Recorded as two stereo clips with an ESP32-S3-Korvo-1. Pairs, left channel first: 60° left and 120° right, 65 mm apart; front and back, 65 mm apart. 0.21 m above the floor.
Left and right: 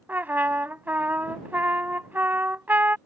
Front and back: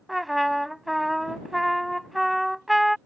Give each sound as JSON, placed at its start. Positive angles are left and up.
{"t": 0.1, "sound": "a trumpet", "azimuth_deg": -90}